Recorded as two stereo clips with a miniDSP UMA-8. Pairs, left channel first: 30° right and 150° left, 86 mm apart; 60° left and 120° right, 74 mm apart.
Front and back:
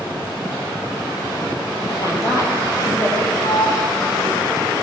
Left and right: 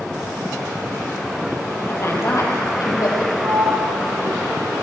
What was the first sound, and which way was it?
A woman speaking, 5° left.